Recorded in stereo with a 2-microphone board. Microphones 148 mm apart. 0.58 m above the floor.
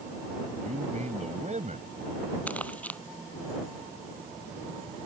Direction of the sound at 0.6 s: 55° right (ahead or behind).